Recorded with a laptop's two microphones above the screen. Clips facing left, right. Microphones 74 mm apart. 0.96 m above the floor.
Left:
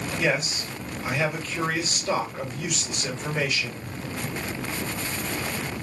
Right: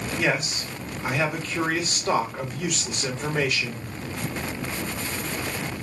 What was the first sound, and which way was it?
A man speaking, 55° right (ahead or behind).